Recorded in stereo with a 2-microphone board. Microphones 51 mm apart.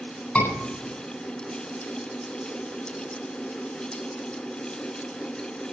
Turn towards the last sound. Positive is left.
turn(degrees=35)  # may be behind; listen again after turning